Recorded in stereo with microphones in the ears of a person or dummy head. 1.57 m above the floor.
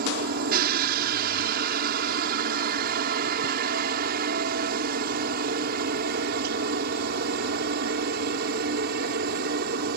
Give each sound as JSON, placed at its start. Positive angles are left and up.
{"t": 0.0, "sound": "a helicopter", "side_deg": -45}